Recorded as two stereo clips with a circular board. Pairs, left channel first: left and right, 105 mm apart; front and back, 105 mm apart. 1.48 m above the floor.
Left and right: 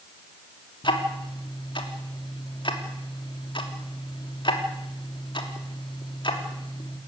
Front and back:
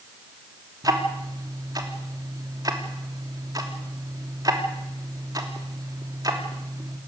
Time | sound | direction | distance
0.8 | ticking | 130° left | 3 m